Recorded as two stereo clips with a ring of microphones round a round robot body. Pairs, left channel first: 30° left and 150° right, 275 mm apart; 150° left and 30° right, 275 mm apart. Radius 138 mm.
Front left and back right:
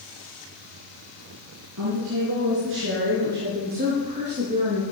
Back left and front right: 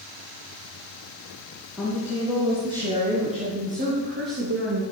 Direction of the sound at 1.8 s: 120° right.